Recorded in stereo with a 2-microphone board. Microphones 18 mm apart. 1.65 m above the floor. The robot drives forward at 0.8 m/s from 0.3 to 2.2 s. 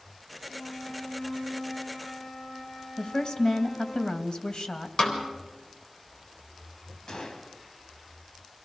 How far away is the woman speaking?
About 2.5 m.